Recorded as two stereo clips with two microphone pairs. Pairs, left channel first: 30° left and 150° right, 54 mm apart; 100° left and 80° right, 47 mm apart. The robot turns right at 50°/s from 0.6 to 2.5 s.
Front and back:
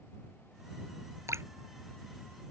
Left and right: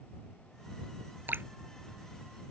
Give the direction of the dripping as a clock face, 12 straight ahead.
4 o'clock.